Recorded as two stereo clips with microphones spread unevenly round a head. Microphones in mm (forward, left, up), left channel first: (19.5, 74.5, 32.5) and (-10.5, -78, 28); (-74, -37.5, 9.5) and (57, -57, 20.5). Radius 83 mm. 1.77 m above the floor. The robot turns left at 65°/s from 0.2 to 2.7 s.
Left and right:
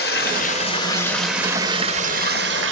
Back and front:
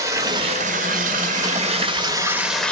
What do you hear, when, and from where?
0.0 s running water: 60° left, 1.0 m; by 2.7 s 105° right, 1.0 m